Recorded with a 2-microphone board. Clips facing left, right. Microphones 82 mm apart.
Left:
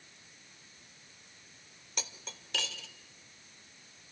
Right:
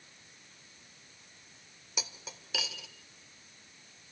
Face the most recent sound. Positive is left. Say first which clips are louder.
# right 1 dB
turn(degrees=-5)  # may be behind; listen again after turning